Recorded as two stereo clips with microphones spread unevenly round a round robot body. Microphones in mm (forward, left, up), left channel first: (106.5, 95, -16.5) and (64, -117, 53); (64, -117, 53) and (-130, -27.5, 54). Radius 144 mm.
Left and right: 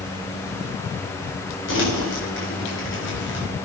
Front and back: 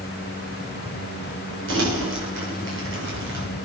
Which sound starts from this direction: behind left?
Crumpling, at 1.7 s.